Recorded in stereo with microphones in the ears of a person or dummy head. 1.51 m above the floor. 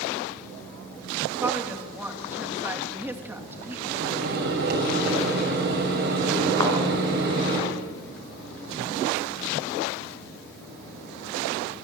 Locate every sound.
1.4 s a woman speaking: 5° right (ahead or behind), 3 m
3.9 s a microwave: 60° right (ahead or behind), 7 m
6.6 s a thud: 15° left (ahead or behind), 5 m